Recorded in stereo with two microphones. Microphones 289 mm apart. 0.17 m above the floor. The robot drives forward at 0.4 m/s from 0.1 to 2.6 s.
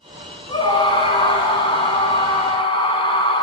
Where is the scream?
15° left (ahead or behind), 1.4 m; by 3.4 s 20° left (ahead or behind), 1.3 m.